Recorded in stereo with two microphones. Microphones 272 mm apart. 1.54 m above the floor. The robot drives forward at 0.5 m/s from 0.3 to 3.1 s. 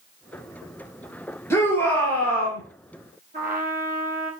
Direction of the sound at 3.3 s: 30° right (ahead or behind).